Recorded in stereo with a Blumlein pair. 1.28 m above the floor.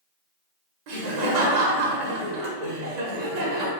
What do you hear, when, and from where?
0.9 s laughter: 45° right, 0.8 m